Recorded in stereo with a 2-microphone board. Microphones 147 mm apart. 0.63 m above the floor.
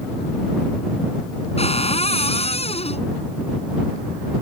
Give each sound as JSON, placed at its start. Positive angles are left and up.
{"t": 1.6, "sound": "a cupboard door", "side_deg": 45}